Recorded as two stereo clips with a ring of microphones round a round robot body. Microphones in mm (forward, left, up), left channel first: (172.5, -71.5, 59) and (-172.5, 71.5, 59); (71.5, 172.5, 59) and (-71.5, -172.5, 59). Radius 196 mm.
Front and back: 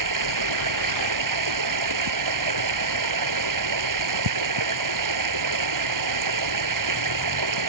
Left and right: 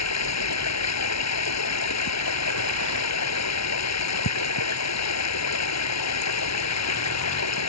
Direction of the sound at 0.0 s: 115° left.